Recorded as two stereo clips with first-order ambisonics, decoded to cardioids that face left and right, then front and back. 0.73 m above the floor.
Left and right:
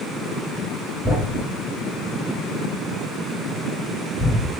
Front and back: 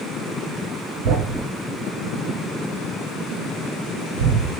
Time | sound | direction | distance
1.0 | a thud | 175° left | 1.9 m